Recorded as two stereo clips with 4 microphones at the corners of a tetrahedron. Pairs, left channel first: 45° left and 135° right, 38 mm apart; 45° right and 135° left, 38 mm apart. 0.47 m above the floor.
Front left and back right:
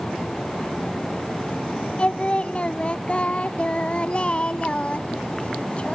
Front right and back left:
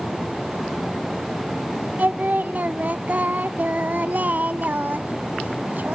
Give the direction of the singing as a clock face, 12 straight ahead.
9 o'clock.